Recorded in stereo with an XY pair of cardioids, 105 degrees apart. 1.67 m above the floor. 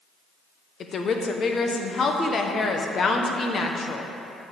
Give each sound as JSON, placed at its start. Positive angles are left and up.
{"t": 0.8, "sound": "a woman speaking", "azimuth_deg": 45, "distance_m": 0.9}